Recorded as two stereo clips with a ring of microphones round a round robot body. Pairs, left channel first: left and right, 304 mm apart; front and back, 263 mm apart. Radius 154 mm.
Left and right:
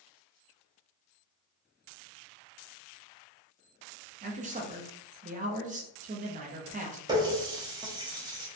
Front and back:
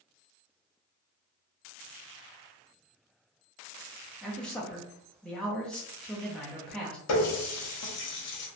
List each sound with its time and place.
4.2 s a man speaking: 80° right, 0.5 m
7.1 s a running tap: 15° right, 0.6 m